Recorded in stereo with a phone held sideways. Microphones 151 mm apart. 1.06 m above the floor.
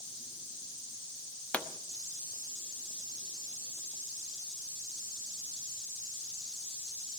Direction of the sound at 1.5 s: 10° left (ahead or behind).